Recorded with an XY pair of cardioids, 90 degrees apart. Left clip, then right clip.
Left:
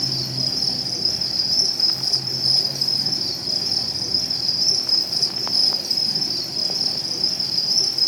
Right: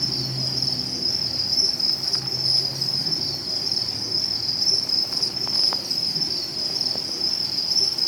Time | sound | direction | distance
0.0 | an insect | 45° left | 7.5 m